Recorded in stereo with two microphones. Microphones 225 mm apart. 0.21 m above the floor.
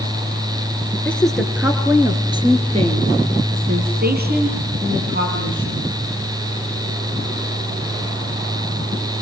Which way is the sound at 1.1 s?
5° left (ahead or behind).